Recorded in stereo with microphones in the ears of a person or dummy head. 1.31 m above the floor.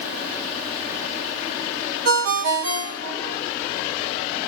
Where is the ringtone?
60° right (ahead or behind), 3.5 m.